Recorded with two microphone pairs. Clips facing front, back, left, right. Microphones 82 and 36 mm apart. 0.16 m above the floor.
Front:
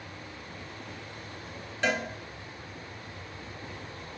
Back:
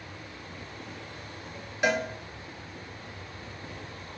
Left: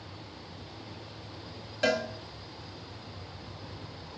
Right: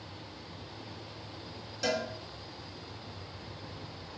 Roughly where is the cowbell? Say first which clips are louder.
Back 3 dB, left 4 dB; left.